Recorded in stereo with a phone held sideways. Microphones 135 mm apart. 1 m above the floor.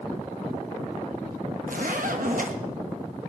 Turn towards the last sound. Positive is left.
turn(degrees=-70)  # may be behind; listen again after turning